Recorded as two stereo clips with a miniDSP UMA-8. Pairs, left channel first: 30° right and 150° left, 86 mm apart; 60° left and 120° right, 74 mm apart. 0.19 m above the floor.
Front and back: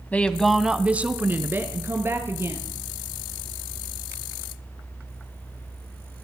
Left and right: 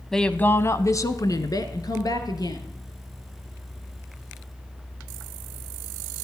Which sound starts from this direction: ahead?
A woman speaking, at 0.1 s.